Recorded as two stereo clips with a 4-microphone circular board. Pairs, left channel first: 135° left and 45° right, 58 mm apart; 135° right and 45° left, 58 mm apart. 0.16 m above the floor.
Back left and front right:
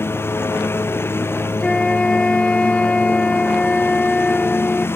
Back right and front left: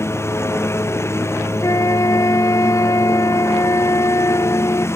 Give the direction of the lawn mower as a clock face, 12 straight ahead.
6 o'clock.